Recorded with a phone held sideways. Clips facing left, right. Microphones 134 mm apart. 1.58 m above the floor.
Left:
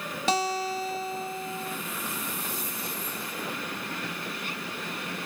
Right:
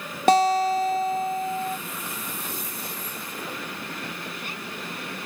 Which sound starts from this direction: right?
A guitar, at 0.3 s.